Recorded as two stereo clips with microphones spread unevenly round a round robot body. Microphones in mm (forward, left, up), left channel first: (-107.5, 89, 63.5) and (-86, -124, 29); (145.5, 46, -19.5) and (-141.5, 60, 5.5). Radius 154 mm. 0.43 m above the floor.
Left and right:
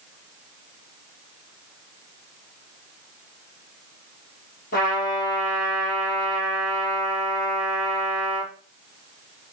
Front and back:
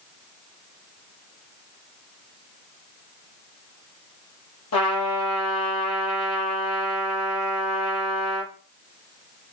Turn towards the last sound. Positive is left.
turn(degrees=35)